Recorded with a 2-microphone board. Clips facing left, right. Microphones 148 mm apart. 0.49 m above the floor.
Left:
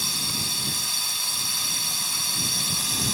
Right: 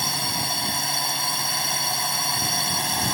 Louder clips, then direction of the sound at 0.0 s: Right 6 dB; 60° right (ahead or behind).